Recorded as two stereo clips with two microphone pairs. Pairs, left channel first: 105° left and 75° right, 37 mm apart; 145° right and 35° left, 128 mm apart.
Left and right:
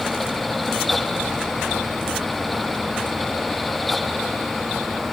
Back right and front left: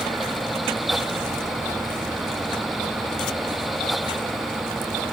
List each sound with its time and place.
Only background noise.